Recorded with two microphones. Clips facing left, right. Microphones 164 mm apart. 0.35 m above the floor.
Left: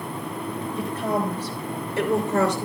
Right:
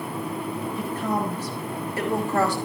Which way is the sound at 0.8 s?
70° left (ahead or behind).